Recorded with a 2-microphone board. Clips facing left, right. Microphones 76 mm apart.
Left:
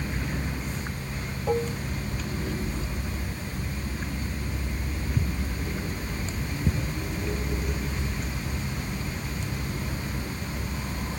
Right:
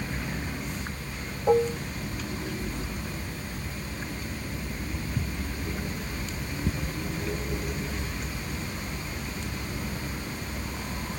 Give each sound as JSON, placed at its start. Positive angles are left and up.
{"t": 1.5, "sound": "dishes clattering", "side_deg": -20}